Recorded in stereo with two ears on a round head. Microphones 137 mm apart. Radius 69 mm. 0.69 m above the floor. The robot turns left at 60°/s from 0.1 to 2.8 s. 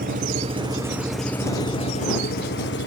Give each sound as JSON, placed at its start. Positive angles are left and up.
{"t": 0.0, "sound": "an engine running", "azimuth_deg": -115}